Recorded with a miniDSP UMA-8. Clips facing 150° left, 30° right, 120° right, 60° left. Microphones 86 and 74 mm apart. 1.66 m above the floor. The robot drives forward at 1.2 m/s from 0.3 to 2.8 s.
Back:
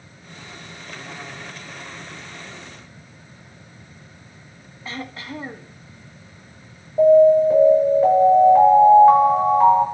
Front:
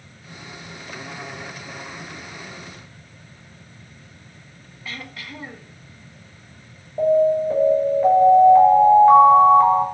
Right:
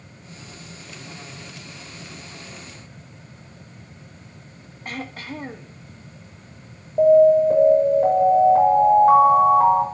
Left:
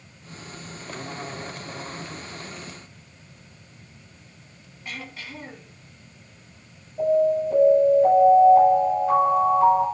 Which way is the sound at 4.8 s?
155° right.